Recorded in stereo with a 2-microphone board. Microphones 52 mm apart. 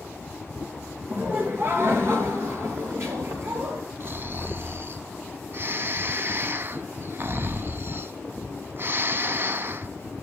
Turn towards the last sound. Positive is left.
turn(degrees=-50)  # may be behind; listen again after turning